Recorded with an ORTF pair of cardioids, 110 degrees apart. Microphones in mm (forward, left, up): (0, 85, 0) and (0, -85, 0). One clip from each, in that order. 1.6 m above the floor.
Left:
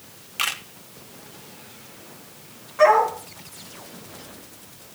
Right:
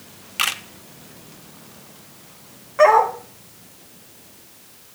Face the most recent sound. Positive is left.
turn(degrees=-40)